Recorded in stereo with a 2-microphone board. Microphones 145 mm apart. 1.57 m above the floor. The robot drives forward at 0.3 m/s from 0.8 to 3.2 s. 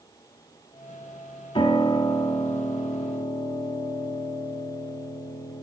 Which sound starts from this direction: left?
A piano, at 1.6 s.